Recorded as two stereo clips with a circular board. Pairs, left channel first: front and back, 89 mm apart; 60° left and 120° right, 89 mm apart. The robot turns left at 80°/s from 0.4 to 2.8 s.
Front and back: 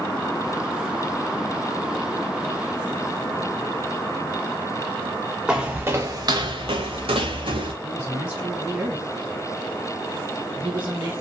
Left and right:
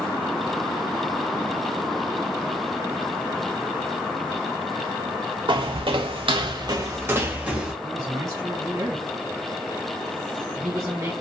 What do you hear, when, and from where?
5.5 s footsteps: 100° right, 0.7 m; by 7.7 s 160° left, 0.9 m
7.8 s a man speaking: 110° right, 2.0 m